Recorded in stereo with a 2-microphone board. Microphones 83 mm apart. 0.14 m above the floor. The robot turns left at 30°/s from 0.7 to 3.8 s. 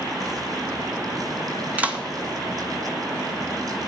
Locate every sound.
1.8 s a clap: 20° right (ahead or behind), 1.7 m; by 2.0 s 15° right (ahead or behind), 1.7 m